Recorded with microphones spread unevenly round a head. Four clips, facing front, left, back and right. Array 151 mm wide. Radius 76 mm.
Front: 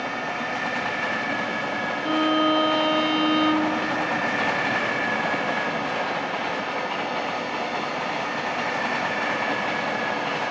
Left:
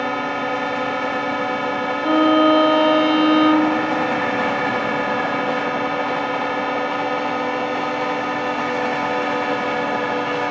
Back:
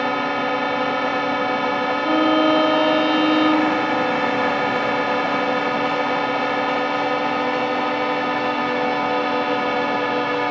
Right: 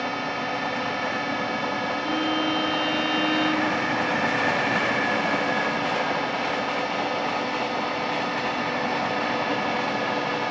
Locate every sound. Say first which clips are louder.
0.0 s a drone: left 6 dB, back 7 dB; 145° left
2.0 s a violin: left 13 dB, back 4 dB; 110° left